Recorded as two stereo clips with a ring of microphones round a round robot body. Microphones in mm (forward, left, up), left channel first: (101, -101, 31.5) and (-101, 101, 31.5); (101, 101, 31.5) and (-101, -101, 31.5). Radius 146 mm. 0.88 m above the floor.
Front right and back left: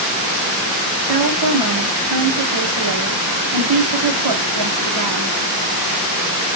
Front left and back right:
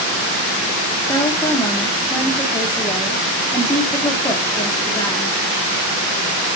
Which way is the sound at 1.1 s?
125° left.